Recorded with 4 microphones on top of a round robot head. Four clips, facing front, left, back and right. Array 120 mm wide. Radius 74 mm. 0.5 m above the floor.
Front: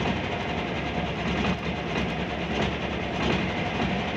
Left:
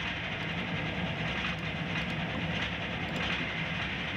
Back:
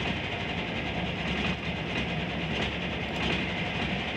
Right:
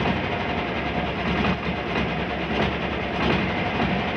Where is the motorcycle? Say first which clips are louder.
Right 13 dB, front 5 dB; 70° right.